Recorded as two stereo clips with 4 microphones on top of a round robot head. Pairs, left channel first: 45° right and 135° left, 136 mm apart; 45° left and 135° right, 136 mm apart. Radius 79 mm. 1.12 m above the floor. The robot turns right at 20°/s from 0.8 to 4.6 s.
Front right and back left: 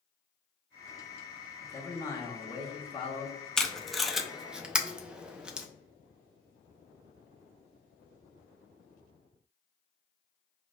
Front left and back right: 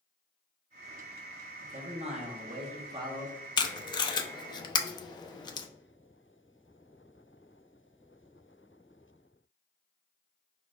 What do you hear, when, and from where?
1.6 s a man speaking: 115° right, 0.8 m; by 3.4 s 80° right, 0.8 m
3.6 s tape being pulled: 35° left, 0.5 m; by 5.7 s 60° left, 0.5 m